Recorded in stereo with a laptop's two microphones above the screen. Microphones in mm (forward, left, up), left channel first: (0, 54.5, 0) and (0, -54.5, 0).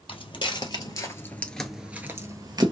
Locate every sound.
0.1 s footsteps: 50° left (ahead or behind), 1.5 m; by 2.7 s 40° right (ahead or behind), 1.2 m